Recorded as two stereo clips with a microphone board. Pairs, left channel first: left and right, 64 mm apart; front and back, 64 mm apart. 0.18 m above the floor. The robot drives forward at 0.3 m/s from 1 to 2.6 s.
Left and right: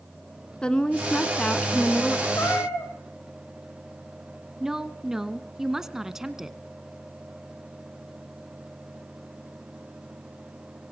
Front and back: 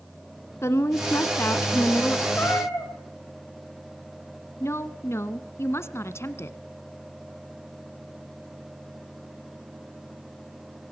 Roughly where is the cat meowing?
Ahead left.